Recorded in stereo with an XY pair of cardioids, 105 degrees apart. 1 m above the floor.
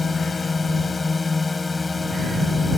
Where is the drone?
25° left; by 2.8 s 15° left.